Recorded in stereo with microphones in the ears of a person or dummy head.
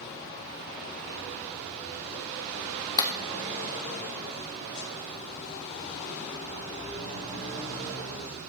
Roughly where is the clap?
Left.